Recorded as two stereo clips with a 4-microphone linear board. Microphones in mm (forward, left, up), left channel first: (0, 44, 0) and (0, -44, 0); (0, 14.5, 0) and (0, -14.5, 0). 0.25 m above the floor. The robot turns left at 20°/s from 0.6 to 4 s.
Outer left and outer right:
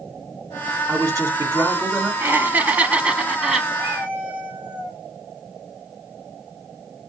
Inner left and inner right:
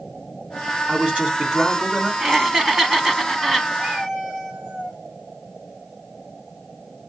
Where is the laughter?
25° right (ahead or behind), 1.7 m; by 3.7 s centre (ahead or behind), 1.7 m.